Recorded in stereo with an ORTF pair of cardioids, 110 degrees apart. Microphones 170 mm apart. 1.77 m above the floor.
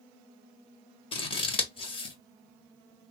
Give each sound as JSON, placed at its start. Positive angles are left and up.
{"t": 1.1, "sound": "scissors", "azimuth_deg": 35, "distance_m": 1.1}